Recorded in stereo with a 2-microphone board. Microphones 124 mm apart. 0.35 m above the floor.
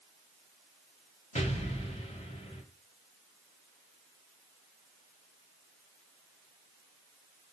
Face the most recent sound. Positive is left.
turn(degrees=60)  # may be behind; listen again after turning